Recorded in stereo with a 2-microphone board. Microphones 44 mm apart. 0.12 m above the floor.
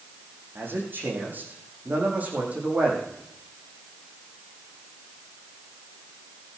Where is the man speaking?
55° right (ahead or behind), 6.5 m; by 3.1 s 30° right (ahead or behind), 6.5 m.